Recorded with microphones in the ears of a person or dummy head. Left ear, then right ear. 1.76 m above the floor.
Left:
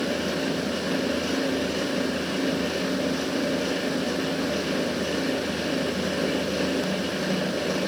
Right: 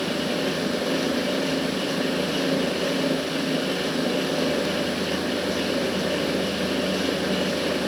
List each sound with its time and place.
Only background noise.